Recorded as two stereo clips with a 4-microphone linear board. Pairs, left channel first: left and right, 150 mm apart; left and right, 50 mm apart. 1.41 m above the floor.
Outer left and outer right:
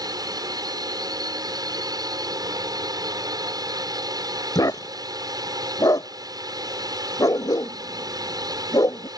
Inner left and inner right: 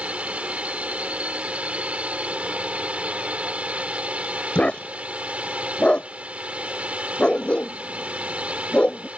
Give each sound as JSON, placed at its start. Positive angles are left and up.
{"t": 0.0, "sound": "a drone", "side_deg": -25}
{"t": 4.5, "sound": "a dog barking", "side_deg": 25}